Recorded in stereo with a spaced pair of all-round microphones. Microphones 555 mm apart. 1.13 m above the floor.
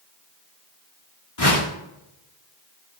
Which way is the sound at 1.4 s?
85° left.